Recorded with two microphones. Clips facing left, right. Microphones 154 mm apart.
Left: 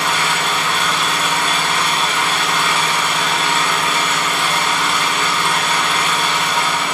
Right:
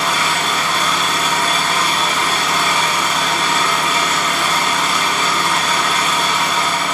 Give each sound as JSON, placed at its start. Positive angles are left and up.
{"t": 0.0, "sound": "an engine running", "side_deg": -40, "distance_m": 1.2}